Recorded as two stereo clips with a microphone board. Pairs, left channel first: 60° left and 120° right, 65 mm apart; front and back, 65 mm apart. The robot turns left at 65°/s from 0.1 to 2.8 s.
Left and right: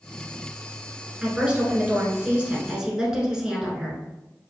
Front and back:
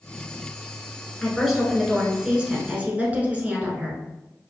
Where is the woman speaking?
70° right, 1.1 m; by 4.0 s 175° right, 1.1 m.